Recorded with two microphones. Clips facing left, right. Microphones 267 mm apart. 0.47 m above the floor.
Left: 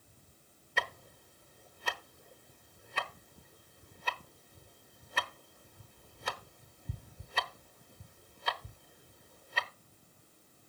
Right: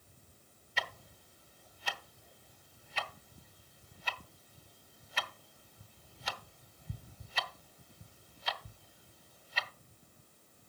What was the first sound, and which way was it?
Ticking, 60° left (ahead or behind).